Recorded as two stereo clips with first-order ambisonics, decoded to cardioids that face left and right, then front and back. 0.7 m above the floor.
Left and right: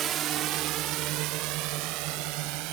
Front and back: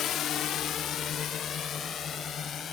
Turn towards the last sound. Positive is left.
turn(degrees=-65)